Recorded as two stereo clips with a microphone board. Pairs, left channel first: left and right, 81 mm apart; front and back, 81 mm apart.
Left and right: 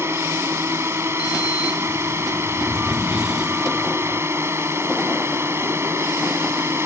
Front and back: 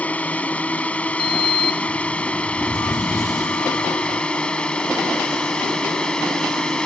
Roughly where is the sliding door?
Ahead.